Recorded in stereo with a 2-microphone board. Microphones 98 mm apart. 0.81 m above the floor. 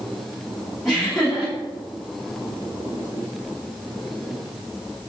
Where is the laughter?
5° right (ahead or behind), 1.3 m.